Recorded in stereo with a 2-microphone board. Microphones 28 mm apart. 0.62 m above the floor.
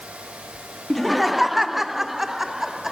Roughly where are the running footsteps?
I don't hear running footsteps.